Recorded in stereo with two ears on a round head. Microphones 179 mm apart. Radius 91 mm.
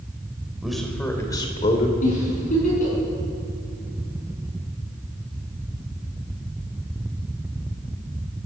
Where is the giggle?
40° left (ahead or behind), 6.5 m.